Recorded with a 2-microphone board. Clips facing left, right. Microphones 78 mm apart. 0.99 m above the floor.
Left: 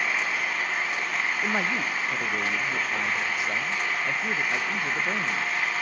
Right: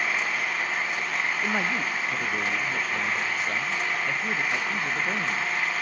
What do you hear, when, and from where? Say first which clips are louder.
0.0 s an engine running: even; centre (ahead or behind), 4 m
1.4 s a man speaking: even; 10° left (ahead or behind), 0.6 m